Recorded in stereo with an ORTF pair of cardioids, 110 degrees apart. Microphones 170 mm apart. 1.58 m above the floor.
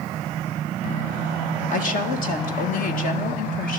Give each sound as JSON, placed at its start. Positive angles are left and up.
{"t": 1.7, "sound": "a woman speaking", "azimuth_deg": 55, "distance_m": 1.9}